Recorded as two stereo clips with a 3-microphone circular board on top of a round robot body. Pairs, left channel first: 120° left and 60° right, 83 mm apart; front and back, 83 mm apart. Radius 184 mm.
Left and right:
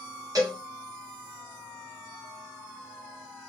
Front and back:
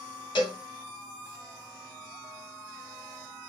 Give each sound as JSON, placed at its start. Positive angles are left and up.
{"t": 0.3, "sound": "a cowbell", "azimuth_deg": -15, "distance_m": 0.9}